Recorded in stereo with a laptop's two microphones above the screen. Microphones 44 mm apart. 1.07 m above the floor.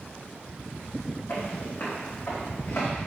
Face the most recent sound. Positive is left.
turn(degrees=75)  # may be behind; listen again after turning